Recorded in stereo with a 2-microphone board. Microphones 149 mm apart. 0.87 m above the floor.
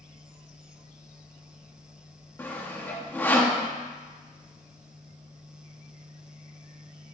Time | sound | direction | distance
2.4 | sawing | 15° left (ahead or behind) | 1.2 m